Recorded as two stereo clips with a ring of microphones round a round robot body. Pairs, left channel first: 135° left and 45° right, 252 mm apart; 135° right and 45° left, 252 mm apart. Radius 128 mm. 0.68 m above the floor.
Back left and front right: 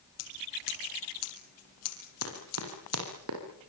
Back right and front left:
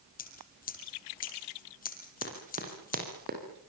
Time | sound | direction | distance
0.2 | scissors | 165° left | 4.5 m
2.2 | running footsteps | 20° right | 9 m